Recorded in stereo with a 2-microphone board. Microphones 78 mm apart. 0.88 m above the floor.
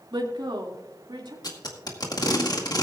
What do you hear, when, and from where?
0.1 s a woman speaking: 75° right (ahead or behind), 2.0 m; by 1.3 s 80° right, 2.5 m
1.4 s tape being pulled: 60° left (ahead or behind), 1.9 m